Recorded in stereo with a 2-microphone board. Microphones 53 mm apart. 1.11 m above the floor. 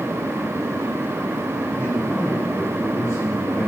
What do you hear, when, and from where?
1.7 s a man speaking: 50° left (ahead or behind), 7 m; by 3.7 s 55° left (ahead or behind), 6 m